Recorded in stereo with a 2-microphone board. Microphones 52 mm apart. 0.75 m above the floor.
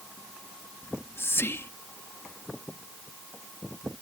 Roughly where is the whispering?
Left.